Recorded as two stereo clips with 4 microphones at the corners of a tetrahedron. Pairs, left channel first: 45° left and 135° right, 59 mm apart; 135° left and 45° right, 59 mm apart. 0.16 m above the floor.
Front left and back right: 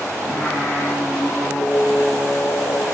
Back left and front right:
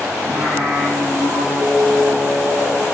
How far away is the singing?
About 3.5 m.